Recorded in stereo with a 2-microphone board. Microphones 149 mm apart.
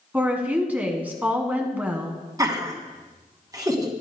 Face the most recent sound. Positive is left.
turn(degrees=-25)  # may be behind; listen again after turning